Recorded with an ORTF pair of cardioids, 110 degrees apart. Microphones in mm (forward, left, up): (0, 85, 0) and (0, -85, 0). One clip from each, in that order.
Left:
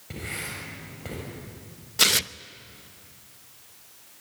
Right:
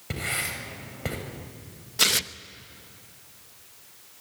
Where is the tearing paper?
10° left, 0.7 m.